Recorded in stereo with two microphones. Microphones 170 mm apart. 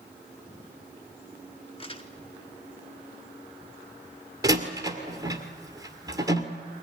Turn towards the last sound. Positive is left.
turn(degrees=-20)  # may be behind; listen again after turning